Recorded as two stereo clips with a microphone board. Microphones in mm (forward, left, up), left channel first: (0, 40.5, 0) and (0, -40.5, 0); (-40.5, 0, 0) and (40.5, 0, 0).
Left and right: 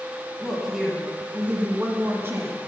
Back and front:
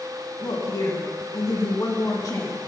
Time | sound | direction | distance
0.4 | a woman speaking | straight behind | 1.4 m